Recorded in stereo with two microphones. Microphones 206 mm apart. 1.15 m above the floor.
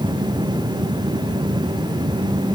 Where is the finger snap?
I don't hear a finger snap.